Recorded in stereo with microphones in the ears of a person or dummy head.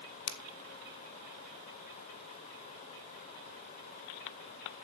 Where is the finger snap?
70° left (ahead or behind), 1.3 m.